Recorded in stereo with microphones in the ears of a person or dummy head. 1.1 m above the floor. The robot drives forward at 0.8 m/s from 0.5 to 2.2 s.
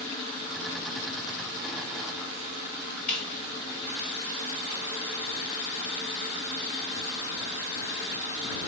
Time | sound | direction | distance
3.1 | a squeak | 50° left (ahead or behind) | 3 m